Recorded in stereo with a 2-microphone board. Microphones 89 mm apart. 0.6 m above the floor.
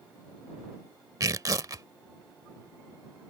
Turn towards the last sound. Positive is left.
turn(degrees=-45)  # may be behind; listen again after turning